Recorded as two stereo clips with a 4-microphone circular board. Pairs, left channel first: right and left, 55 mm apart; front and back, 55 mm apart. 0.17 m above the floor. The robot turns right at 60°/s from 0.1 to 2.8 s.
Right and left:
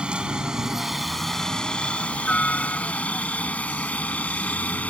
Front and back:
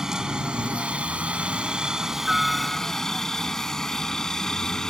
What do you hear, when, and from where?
0.0 s a helicopter: 120° left; by 4.9 s 70° right